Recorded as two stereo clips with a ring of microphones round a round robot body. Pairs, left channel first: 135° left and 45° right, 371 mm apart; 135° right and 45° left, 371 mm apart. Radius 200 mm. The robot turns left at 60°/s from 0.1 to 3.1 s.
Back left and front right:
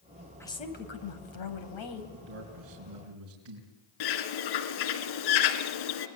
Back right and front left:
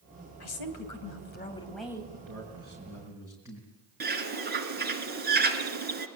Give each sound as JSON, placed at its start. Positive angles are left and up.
{"t": 0.4, "sound": "a woman speaking", "azimuth_deg": -140, "distance_m": 3.5}
{"t": 2.1, "sound": "a man speaking", "azimuth_deg": 20, "distance_m": 4.0}
{"t": 4.0, "sound": "a bird", "azimuth_deg": 110, "distance_m": 2.5}